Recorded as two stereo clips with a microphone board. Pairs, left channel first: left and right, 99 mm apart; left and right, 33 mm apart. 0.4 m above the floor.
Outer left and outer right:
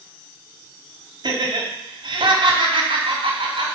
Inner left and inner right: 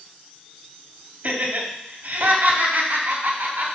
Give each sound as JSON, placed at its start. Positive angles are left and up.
{"t": 1.2, "sound": "laughter", "side_deg": -50, "distance_m": 2.5}